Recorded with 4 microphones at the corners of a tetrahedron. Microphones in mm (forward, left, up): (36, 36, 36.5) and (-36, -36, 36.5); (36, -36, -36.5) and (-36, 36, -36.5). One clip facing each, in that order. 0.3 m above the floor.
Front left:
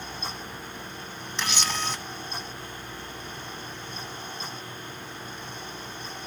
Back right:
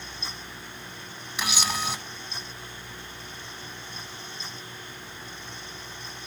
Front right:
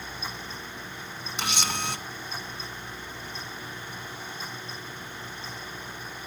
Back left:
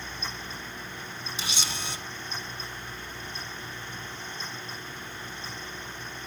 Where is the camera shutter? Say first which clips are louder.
Back right 1 dB, front right 7 dB; 55° right, 1.5 m.